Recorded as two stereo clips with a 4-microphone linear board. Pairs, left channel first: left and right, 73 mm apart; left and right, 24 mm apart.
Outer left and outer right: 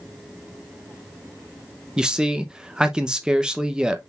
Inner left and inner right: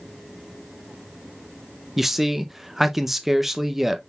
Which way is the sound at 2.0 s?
10° right (ahead or behind).